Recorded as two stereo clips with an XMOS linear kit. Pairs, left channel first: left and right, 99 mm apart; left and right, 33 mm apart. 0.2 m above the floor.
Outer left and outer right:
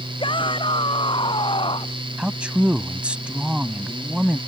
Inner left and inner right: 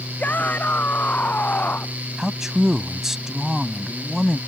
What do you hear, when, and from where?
0.2 s a shout: 55° left (ahead or behind); by 2.0 s 60° left (ahead or behind)
2.2 s a man speaking: 10° right (ahead or behind)